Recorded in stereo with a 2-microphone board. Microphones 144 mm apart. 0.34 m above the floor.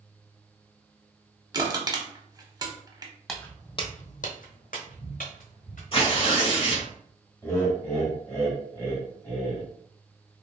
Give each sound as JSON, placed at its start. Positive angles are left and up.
{"t": 1.5, "sound": "crushing", "side_deg": -30, "distance_m": 0.8}
{"t": 3.3, "sound": "footsteps", "side_deg": 0, "distance_m": 0.8}
{"t": 5.9, "sound": "tearing paper", "side_deg": 40, "distance_m": 1.3}
{"t": 7.4, "sound": "laughter", "side_deg": 20, "distance_m": 1.3}